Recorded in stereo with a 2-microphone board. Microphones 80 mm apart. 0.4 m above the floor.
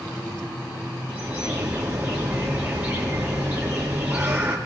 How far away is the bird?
About 4 m.